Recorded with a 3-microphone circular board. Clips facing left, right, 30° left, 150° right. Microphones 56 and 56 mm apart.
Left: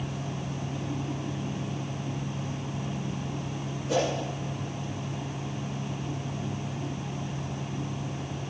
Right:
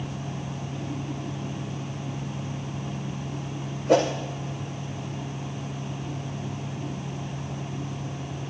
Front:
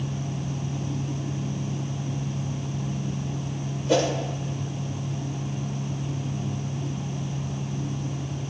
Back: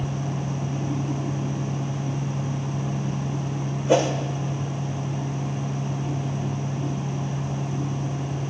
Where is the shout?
No shout in this recording.